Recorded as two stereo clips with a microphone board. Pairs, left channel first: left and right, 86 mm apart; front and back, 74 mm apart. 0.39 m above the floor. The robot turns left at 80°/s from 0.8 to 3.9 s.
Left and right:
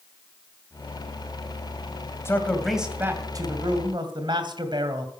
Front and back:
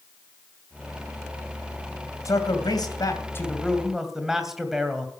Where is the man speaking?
35° left, 2.5 m; by 5.1 s 95° right, 2.5 m.